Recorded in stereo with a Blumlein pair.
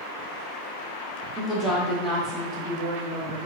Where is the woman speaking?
Straight ahead, 1.2 m; by 3.5 s 35° right, 2.5 m.